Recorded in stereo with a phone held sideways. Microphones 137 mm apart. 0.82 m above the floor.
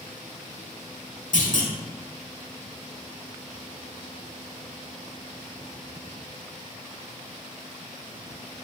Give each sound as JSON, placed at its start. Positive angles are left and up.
{"t": 1.3, "sound": "a clunk", "side_deg": 65, "distance_m": 1.1}